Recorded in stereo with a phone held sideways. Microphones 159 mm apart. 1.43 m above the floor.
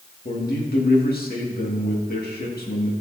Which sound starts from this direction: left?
A man speaking, at 0.2 s.